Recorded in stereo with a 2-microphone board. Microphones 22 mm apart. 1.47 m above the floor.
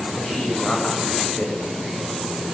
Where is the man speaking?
55° left (ahead or behind), 8.5 m.